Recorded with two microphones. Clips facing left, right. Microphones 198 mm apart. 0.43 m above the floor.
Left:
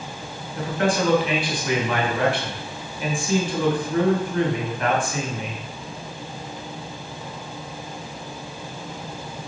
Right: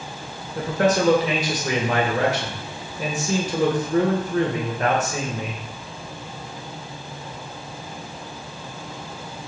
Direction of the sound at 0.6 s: 40° right (ahead or behind).